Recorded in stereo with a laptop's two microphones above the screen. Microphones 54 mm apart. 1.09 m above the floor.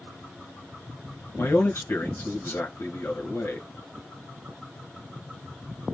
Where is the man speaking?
60° left (ahead or behind), 1.4 m.